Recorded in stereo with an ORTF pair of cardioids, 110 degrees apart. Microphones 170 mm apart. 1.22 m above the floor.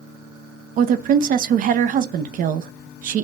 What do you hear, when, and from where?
0.8 s a woman speaking: 55° right, 0.6 m